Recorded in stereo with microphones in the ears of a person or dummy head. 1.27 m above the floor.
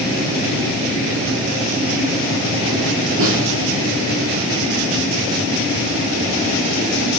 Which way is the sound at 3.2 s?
80° right.